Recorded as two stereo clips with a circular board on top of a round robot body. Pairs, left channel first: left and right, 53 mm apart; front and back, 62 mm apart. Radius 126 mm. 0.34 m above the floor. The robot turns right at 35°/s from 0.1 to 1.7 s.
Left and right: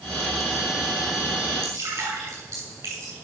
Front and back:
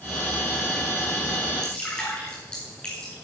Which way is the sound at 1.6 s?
75° right.